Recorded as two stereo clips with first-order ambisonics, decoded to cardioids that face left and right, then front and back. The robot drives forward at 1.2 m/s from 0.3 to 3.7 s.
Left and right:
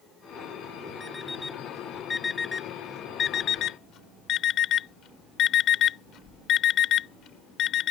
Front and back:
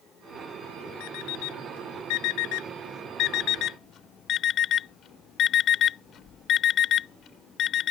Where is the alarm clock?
10° left; by 7.9 s 45° left.